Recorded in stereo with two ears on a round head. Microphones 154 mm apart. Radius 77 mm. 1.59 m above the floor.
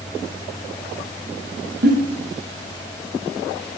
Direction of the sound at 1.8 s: 65° right (ahead or behind).